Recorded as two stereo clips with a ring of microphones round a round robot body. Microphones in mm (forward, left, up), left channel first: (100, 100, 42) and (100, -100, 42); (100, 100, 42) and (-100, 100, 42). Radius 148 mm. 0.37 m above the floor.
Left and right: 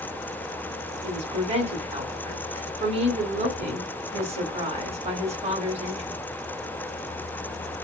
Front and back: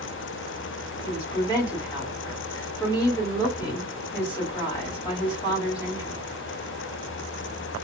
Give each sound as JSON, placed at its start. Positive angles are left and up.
{"t": 1.0, "sound": "a woman speaking", "azimuth_deg": -55, "distance_m": 1.6}